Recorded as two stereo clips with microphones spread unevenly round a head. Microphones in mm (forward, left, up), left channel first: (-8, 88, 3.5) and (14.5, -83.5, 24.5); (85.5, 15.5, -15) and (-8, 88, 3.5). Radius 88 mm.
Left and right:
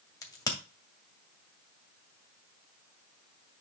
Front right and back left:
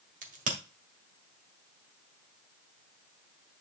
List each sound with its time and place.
0.2 s a crack: 170° left, 2 m